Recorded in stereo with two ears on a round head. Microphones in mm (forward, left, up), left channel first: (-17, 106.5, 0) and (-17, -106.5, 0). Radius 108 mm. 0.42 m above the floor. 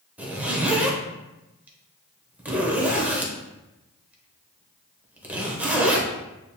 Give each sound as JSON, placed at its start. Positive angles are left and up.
{"t": 0.2, "sound": "a zipper", "side_deg": -5, "distance_m": 0.8}